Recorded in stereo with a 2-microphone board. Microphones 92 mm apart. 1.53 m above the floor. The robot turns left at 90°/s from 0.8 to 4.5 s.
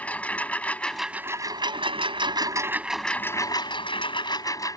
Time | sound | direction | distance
0.0 | a lawn mower | 15° left | ?